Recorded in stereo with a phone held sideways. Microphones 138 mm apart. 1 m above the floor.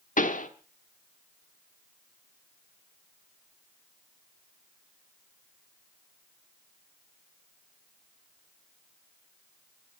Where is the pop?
70° left (ahead or behind), 1.2 m.